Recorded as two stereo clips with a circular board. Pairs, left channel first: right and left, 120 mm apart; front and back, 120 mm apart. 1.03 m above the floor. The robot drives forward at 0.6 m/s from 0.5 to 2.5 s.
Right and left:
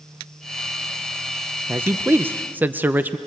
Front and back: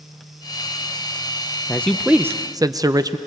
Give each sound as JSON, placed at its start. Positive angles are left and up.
{"t": 1.7, "sound": "a man speaking", "azimuth_deg": 45, "distance_m": 0.6}